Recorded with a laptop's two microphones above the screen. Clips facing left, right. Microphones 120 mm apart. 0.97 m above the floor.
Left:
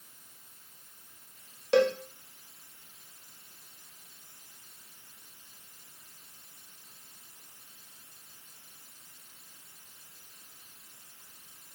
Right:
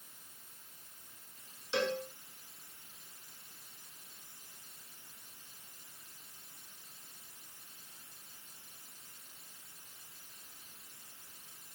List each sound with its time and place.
1.7 s a cowbell: 75° left (ahead or behind), 0.8 m